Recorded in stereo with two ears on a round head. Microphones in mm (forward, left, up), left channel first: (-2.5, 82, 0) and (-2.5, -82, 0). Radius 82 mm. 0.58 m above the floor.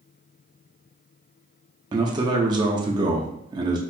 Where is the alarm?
No alarm in this recording.